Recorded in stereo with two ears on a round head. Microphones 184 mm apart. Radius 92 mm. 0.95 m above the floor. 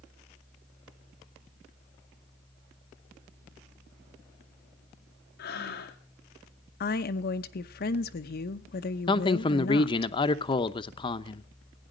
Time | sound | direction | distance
5.4 | breathing | 50° left (ahead or behind) | 2.5 m
6.8 | a woman speaking | 50° left (ahead or behind) | 0.8 m
9.1 | a man speaking | 25° left (ahead or behind) | 0.8 m